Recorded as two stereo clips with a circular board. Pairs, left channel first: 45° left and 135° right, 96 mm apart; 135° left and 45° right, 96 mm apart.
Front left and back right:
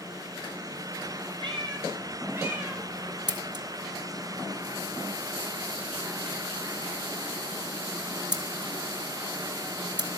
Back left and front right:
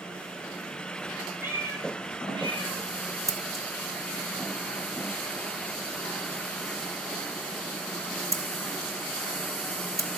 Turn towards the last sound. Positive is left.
turn(degrees=-100)